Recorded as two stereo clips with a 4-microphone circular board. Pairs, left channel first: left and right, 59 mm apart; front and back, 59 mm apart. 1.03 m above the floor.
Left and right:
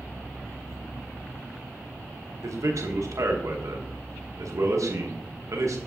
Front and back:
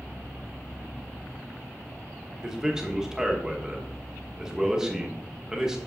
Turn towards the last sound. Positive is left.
turn(degrees=-100)